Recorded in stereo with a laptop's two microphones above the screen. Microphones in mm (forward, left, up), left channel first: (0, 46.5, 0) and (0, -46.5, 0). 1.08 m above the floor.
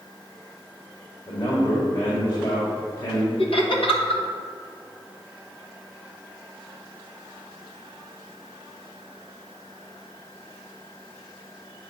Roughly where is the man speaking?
Left.